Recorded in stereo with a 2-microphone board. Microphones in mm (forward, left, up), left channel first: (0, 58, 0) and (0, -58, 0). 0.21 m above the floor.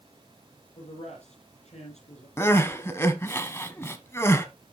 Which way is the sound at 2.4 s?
20° left (ahead or behind).